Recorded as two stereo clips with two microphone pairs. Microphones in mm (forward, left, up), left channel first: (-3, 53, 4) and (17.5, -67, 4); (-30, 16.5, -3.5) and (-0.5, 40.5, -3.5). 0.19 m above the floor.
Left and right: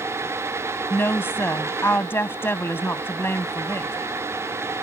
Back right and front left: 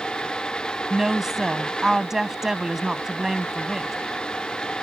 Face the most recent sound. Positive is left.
turn(degrees=95)